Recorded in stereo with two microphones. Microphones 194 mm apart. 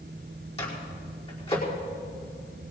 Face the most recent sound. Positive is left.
turn(degrees=30)  # may be behind; listen again after turning